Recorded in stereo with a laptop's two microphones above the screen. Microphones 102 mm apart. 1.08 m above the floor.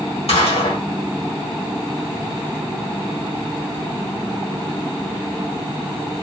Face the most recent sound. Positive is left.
turn(degrees=75)  # may be behind; listen again after turning